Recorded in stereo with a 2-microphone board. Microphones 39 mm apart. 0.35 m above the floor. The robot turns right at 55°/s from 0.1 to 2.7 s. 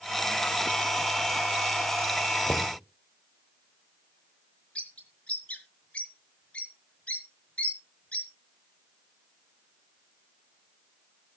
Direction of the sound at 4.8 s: 35° left (ahead or behind).